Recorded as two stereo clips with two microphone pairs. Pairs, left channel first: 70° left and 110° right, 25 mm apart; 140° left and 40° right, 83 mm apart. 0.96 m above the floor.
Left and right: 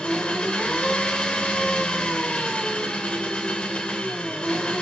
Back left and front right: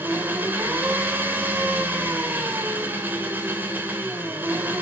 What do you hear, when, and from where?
0.0 s an engine running: 25° left, 3 m